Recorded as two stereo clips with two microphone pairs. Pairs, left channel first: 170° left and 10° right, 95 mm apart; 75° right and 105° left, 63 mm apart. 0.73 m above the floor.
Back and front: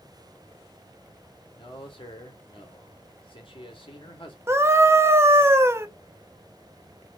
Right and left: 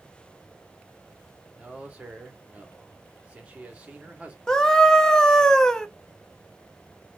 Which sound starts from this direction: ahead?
A scream, at 4.5 s.